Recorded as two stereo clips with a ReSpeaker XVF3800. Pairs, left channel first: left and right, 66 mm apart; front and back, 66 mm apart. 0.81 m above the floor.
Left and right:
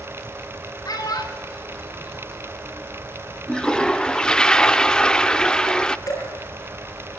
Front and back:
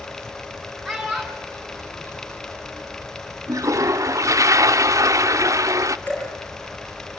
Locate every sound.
0.8 s a child speaking: 90° left, 4.5 m; by 2.8 s 65° left, 5 m
3.5 s a toilet flushing: 165° left, 0.5 m
6.1 s dripping: 65° left, 6.5 m